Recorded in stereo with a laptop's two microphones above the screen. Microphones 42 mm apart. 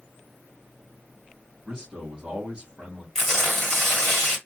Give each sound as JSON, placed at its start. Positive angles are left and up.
{"t": 1.6, "sound": "a man speaking", "side_deg": -15, "distance_m": 1.5}
{"t": 3.1, "sound": "tearing paper", "side_deg": 15, "distance_m": 1.6}